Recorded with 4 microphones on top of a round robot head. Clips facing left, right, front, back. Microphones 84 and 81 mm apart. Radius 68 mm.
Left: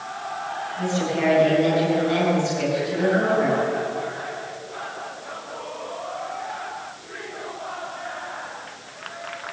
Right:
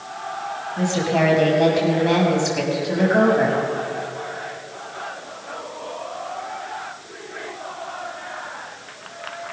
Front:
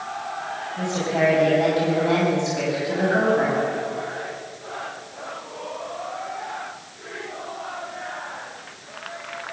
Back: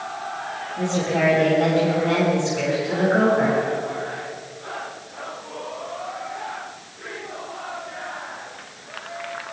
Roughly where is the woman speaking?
Right.